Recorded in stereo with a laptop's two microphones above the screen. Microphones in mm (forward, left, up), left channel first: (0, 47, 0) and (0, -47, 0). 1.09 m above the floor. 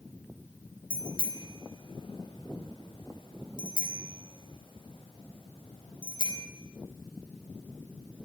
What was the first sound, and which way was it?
A bicycle bell, 60° left (ahead or behind).